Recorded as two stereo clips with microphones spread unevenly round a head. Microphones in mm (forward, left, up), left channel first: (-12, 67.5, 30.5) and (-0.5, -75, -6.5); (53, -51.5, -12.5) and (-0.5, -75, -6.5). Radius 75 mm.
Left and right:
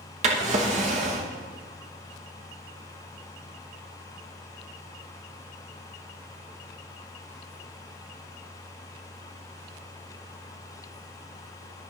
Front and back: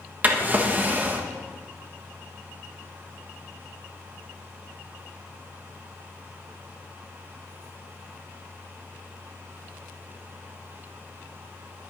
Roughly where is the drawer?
Behind right.